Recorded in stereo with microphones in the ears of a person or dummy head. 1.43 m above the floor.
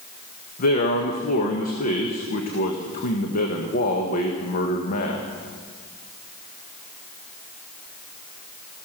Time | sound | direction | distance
0.6 | a man speaking | 50° left (ahead or behind) | 1.4 m